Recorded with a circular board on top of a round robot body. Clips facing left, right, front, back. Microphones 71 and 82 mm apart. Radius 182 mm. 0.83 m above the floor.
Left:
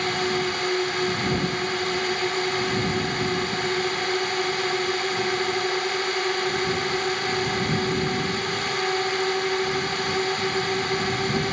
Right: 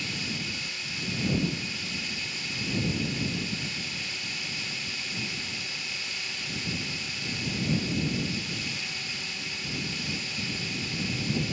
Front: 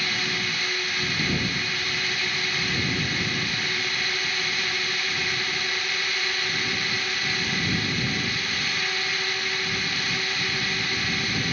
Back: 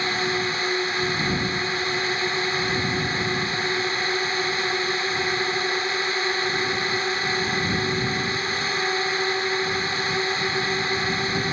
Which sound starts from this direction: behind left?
A drone, at 0.0 s.